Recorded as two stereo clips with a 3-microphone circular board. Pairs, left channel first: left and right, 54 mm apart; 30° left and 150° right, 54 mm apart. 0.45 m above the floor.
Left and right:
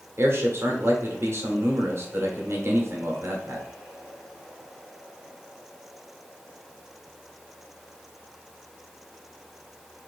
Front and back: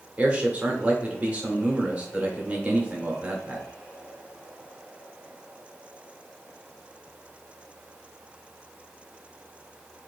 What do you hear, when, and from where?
0.2 s a man speaking: 90° right, 1.1 m